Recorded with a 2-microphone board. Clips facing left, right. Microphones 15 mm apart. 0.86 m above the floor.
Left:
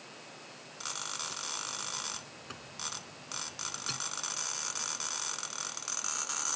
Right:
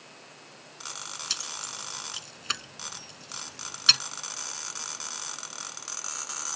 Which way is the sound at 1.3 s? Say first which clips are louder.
Right 4 dB; 85° right.